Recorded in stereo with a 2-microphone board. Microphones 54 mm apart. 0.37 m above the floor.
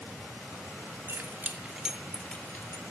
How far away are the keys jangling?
About 1.6 m.